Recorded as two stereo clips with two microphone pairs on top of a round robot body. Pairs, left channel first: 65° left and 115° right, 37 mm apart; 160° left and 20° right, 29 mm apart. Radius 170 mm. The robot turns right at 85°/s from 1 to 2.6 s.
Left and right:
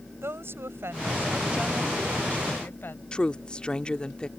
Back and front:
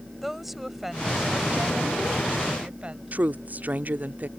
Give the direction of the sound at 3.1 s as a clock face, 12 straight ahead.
12 o'clock.